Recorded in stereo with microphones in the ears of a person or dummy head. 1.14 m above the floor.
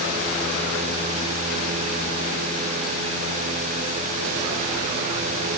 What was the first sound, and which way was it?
Only background noise.